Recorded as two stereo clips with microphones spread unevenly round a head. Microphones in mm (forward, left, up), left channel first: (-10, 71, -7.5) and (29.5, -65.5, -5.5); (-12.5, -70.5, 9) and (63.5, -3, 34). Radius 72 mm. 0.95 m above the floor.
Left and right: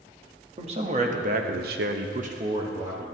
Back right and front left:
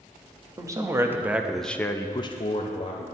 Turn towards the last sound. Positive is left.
turn(degrees=-145)